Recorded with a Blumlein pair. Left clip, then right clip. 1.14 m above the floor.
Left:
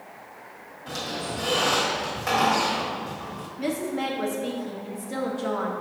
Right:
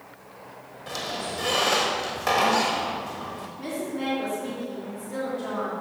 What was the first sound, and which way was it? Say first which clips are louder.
A squeak: even; 10° right.